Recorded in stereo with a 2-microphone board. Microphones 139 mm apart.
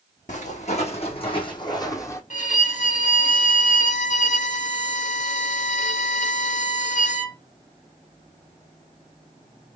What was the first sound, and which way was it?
Footsteps, 60° left (ahead or behind).